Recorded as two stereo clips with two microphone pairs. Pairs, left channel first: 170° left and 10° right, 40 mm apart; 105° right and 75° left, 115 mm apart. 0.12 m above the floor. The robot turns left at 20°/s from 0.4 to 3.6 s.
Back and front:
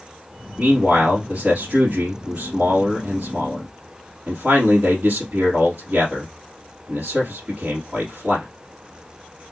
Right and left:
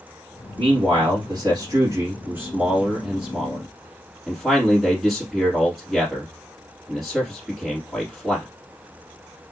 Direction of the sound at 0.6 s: 50° left.